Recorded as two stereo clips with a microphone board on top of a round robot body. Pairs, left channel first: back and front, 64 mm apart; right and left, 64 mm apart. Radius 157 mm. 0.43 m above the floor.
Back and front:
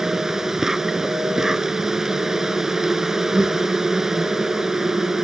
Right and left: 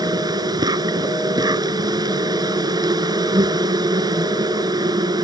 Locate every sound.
0.0 s an insect: 85° left